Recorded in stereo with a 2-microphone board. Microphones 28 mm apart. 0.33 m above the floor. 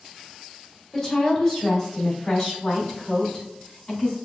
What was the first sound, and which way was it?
A woman speaking, 5° left (ahead or behind).